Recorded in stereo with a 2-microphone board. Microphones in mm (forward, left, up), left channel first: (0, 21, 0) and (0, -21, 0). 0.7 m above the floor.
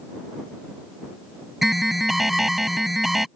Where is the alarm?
5° right (ahead or behind).